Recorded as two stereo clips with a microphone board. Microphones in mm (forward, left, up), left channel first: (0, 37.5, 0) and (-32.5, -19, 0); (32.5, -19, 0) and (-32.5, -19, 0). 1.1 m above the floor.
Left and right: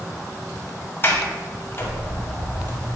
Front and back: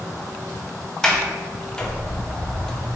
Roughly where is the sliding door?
Left.